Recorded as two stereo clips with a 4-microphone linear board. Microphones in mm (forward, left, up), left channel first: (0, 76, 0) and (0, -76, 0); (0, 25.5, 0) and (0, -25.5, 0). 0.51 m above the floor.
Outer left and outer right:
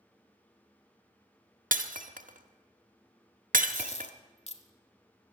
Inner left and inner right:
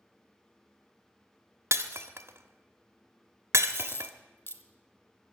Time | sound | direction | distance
1.7 | breaking glass | 70° right (ahead or behind) | 1.0 m
3.7 | a dropped coin | 50° left (ahead or behind) | 1.1 m